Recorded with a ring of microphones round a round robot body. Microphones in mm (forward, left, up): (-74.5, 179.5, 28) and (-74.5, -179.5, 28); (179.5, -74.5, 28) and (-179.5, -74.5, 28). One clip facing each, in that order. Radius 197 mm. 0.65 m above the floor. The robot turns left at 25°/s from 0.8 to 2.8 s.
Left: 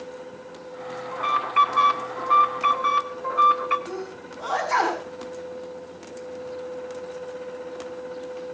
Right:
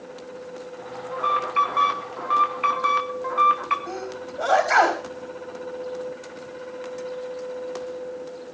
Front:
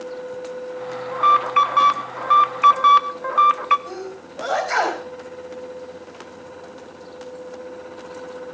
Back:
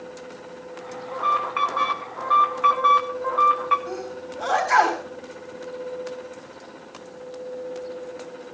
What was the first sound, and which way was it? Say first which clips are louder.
An alarm: right 3 dB, front 3 dB; 25° left.